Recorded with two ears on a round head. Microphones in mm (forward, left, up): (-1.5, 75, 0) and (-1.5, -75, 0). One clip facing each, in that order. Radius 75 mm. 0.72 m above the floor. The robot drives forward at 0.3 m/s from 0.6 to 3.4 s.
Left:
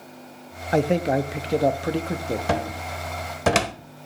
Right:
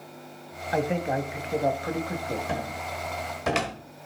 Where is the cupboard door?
70° left (ahead or behind), 0.9 m; by 3.7 s 60° left (ahead or behind), 1.0 m.